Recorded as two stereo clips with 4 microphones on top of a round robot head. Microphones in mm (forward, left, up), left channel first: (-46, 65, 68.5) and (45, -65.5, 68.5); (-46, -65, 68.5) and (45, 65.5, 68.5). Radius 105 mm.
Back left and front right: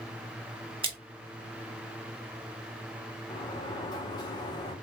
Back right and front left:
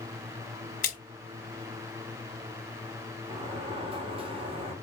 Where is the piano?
I don't hear a piano.